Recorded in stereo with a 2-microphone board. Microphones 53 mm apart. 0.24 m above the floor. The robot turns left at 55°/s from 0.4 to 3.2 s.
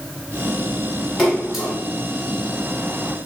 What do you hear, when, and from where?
1.2 s a splash: 10° left (ahead or behind), 1.6 m; by 1.8 s 15° right (ahead or behind), 1.6 m